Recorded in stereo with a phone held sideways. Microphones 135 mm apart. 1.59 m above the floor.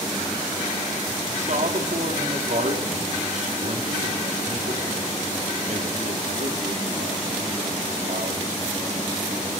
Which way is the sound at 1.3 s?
65° right (ahead or behind).